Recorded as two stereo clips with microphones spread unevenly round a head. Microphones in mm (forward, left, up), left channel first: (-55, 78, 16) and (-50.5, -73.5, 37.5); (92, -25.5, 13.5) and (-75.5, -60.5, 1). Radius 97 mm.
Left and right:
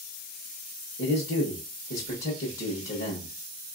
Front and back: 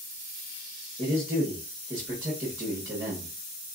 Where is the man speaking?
115° left, 1.0 m.